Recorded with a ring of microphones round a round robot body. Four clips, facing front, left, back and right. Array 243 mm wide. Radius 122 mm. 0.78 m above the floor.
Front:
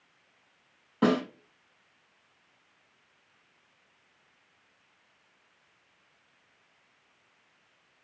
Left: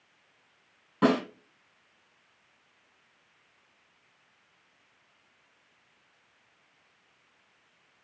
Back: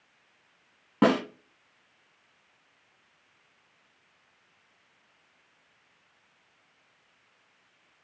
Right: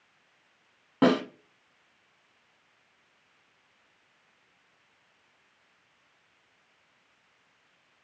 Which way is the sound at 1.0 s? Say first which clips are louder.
Right 2 dB, back 2 dB; 145° right.